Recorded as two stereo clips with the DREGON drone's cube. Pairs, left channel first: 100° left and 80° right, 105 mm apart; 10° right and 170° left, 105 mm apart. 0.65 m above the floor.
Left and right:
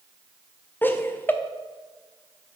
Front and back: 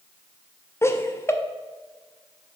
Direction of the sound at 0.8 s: 40° left.